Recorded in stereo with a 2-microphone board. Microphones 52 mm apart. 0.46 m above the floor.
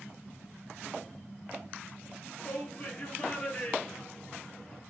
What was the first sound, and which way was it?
A shout, 30° left (ahead or behind).